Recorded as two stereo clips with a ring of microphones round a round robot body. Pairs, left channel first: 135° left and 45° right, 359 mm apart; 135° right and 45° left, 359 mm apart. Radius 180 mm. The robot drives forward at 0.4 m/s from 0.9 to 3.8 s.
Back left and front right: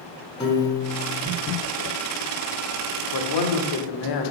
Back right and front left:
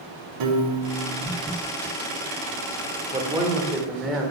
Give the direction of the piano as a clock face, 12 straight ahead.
10 o'clock.